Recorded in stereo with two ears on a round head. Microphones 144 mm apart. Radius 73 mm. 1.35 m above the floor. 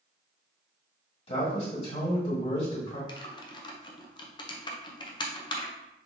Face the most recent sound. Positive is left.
turn(degrees=30)  # may be behind; listen again after turning